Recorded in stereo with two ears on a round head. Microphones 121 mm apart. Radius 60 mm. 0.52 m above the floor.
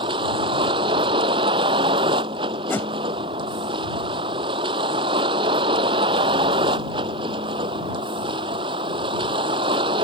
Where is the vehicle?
40° right (ahead or behind).